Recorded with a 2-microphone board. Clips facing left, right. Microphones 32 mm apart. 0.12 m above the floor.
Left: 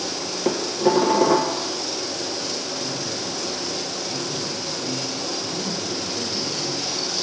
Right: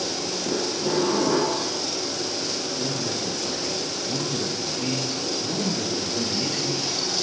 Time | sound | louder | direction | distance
0.5 | dishes clattering | left 7 dB | 60° left (ahead or behind) | 1.8 m
2.8 | a man speaking | right 1 dB | 50° right (ahead or behind) | 2 m